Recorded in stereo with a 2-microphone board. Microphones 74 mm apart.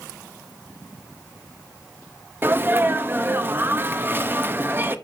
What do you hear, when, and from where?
2.4 s a sneeze: 30° right (ahead or behind), 0.9 m